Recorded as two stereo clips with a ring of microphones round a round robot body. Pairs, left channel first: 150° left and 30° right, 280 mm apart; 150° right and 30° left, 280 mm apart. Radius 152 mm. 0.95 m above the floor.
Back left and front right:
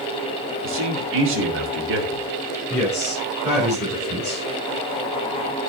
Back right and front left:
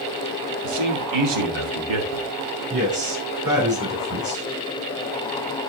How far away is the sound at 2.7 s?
About 6 m.